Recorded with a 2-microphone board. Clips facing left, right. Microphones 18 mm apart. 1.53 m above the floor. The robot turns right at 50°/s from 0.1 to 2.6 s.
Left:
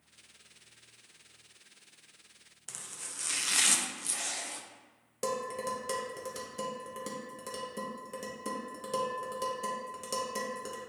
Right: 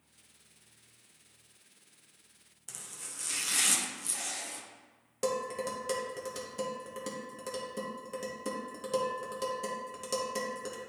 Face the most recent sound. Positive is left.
turn(degrees=-10)  # may be behind; listen again after turning